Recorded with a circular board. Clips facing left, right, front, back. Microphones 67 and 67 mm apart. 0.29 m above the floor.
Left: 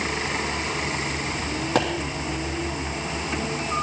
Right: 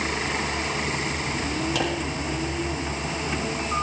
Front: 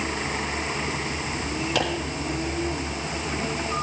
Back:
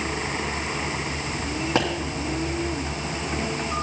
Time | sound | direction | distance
1.8 | a pop | 125° left | 3 m